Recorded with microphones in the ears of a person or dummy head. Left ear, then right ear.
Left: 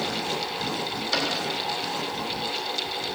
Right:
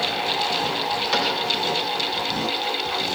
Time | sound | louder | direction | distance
1.1 | a cupboard door | right 2 dB | 35° right (ahead or behind) | 4.5 m